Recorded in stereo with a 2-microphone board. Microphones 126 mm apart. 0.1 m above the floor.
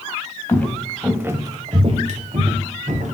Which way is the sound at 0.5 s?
20° left (ahead or behind).